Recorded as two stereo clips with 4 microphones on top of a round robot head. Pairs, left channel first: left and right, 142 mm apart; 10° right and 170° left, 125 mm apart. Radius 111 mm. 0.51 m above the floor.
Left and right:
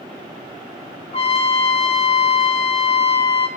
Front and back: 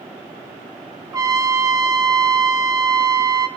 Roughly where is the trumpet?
Behind left.